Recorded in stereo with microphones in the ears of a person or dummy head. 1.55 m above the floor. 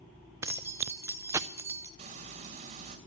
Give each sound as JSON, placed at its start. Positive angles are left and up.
{"t": 0.4, "sound": "keys jangling", "side_deg": -15, "distance_m": 0.6}
{"t": 2.0, "sound": "frying", "side_deg": -40, "distance_m": 2.5}